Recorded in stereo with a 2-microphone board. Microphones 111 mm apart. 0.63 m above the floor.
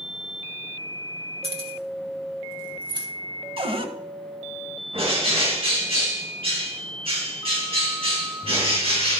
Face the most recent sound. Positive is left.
turn(degrees=-65)  # may be behind; listen again after turning